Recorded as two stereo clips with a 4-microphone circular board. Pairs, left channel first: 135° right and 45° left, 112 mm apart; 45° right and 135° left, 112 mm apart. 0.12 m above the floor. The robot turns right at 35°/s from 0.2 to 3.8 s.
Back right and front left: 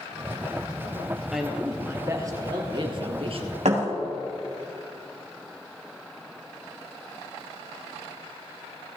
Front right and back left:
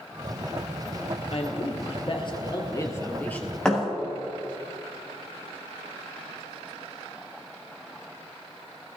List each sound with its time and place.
1.3 s a man speaking: 45° right, 2 m; by 3.5 s 35° left, 2 m
3.6 s a thud: 40° left, 5 m; by 3.9 s 45° left, 5 m